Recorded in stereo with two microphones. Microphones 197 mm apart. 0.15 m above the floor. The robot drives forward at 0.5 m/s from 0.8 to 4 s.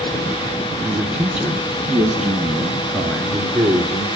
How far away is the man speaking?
About 1.1 m.